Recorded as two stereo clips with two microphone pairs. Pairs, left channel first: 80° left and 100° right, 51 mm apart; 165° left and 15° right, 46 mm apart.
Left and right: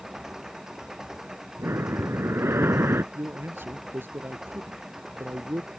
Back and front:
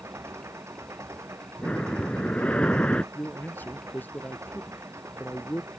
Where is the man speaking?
145° right.